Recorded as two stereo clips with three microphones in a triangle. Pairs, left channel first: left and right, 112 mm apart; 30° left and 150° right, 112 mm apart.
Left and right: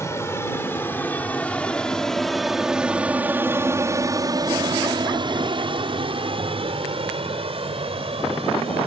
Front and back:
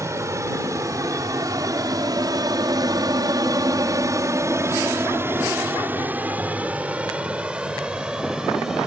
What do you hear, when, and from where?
0.0 s an aircraft: 150° left; by 8.9 s 65° right